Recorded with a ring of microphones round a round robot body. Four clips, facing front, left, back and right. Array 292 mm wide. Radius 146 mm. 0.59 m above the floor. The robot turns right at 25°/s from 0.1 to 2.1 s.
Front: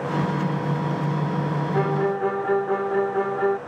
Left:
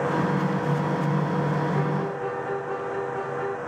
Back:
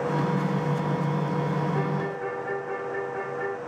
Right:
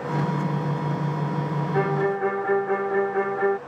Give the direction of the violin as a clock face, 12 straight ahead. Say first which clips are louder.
Right 4 dB, front 6 dB; 2 o'clock.